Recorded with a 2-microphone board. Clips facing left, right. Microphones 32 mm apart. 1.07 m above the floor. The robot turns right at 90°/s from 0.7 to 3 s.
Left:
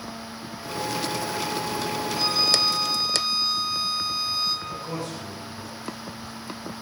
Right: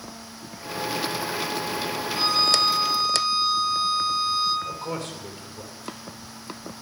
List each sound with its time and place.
2.1 s a violin: 65° right, 8 m; by 4.5 s 15° left, 8 m
4.7 s a man speaking: 70° right (ahead or behind), 3 m